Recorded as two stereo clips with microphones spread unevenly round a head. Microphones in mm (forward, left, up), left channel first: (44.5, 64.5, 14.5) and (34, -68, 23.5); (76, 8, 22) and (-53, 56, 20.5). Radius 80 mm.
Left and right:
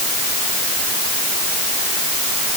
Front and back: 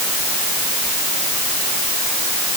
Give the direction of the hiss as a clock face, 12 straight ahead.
I don't hear a hiss.